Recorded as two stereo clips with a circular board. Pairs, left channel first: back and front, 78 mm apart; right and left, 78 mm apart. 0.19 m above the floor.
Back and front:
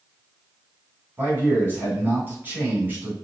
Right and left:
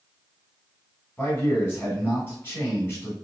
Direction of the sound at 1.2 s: 45° right.